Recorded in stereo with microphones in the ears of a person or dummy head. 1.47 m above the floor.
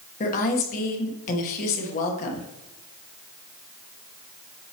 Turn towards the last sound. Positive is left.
turn(degrees=45)  # may be behind; listen again after turning